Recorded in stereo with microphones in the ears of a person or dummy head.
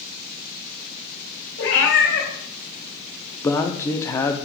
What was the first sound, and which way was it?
A cat meowing, 80° left.